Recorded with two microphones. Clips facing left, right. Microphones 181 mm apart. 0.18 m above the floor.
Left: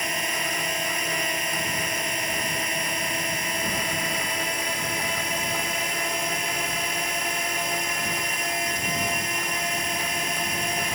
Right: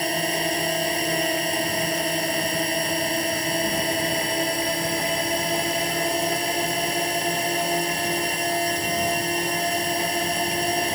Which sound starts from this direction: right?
A drone, at 0.0 s.